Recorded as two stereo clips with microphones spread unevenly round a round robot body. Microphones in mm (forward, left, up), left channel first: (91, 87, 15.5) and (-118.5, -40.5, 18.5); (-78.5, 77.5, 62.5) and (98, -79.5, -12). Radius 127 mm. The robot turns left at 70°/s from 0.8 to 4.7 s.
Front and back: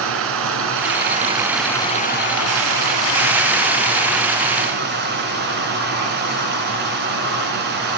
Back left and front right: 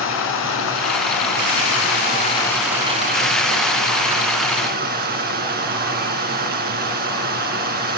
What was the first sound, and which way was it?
Running water, 175° left.